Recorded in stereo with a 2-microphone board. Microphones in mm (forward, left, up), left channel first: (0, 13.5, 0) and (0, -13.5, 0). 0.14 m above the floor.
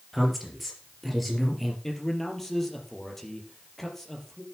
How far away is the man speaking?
About 3.5 m.